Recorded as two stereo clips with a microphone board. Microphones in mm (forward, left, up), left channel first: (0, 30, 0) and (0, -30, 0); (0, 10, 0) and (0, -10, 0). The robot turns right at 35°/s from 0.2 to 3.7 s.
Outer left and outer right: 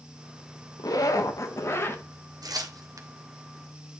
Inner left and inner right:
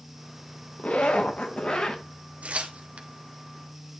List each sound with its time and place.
0.8 s a zipper: 100° left, 1.1 m; by 2.0 s 145° left, 1.1 m
2.4 s tearing paper: 80° right, 0.9 m; by 3.1 s 55° right (ahead or behind), 0.9 m